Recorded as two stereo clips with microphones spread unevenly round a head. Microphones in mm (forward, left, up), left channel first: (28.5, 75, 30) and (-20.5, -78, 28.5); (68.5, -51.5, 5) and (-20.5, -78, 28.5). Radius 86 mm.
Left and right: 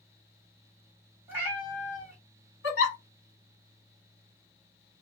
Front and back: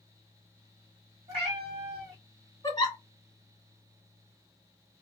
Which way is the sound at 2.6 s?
95° left.